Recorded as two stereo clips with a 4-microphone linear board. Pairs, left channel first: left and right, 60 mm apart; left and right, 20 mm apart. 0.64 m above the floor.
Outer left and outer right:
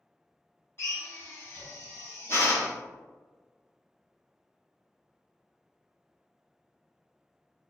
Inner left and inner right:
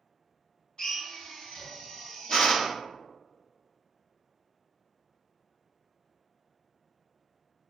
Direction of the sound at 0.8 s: 45° left (ahead or behind).